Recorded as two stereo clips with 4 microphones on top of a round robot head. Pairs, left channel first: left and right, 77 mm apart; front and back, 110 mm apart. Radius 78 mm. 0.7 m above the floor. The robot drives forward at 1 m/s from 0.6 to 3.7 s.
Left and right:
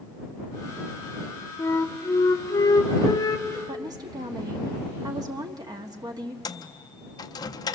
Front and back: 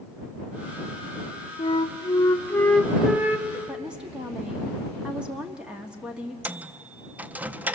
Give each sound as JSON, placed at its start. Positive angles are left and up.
{"t": 1.6, "sound": "a flute", "azimuth_deg": 35, "distance_m": 1.8}
{"t": 3.7, "sound": "a woman speaking", "azimuth_deg": -100, "distance_m": 1.4}
{"t": 6.5, "sound": "a microwave", "azimuth_deg": 105, "distance_m": 0.5}